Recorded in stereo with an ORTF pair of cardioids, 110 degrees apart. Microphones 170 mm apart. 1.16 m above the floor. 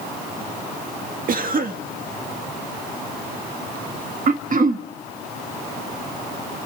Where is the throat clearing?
55° right, 1.7 m.